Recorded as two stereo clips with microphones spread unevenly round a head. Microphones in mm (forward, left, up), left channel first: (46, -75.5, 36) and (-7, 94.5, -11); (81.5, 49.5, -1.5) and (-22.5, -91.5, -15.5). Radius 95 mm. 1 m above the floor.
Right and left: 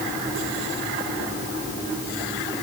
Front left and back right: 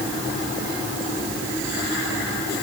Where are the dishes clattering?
I don't hear dishes clattering.